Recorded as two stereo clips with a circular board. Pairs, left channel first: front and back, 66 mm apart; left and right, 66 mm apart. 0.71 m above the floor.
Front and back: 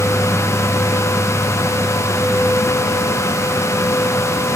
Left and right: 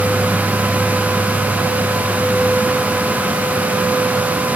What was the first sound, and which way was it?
Only background noise.